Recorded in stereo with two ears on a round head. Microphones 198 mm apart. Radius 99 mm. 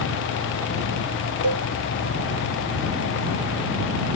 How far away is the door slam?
I don't hear a door slam.